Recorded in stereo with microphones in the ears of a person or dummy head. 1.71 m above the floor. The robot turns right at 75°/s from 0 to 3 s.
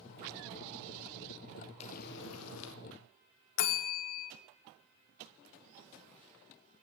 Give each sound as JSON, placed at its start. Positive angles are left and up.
{"t": 1.8, "sound": "frying", "azimuth_deg": 40, "distance_m": 0.8}
{"t": 3.6, "sound": "a bell", "side_deg": 55, "distance_m": 0.8}